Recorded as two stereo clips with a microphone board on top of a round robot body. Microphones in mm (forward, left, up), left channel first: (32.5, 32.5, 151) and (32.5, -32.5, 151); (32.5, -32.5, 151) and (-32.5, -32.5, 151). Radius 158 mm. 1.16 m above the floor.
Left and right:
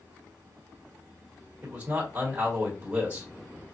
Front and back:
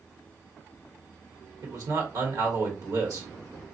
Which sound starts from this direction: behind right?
A man speaking, at 1.6 s.